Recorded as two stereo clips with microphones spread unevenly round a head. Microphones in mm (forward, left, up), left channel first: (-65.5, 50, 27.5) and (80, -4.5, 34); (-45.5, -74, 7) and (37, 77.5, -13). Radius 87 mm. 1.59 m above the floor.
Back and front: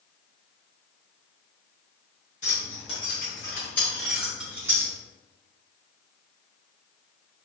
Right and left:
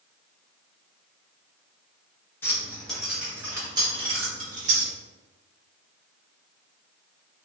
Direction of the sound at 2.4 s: Straight behind.